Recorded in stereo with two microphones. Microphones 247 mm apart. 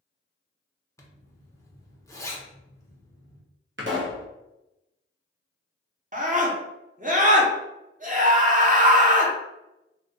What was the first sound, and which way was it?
A zipper, 10° left (ahead or behind).